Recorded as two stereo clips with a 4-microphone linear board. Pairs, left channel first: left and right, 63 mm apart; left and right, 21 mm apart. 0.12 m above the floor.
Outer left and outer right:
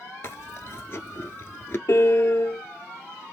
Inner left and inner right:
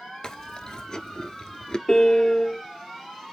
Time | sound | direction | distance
0.2 | chewing | 40° left (ahead or behind) | 0.5 m
1.9 | a piano | 45° left (ahead or behind) | 0.6 m